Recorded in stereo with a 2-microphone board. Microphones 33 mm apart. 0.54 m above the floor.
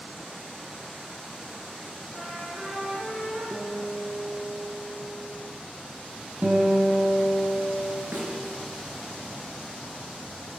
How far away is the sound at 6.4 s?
About 3 m.